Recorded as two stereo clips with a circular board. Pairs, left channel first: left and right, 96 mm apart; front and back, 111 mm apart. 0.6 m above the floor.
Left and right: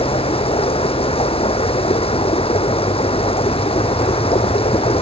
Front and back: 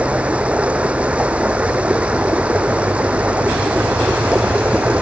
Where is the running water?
100° left.